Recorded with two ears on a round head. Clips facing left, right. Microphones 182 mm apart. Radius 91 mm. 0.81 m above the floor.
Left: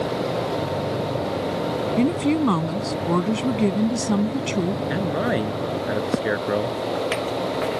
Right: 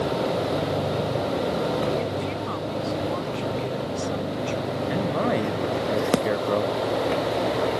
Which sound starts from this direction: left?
A woman speaking, at 2.0 s.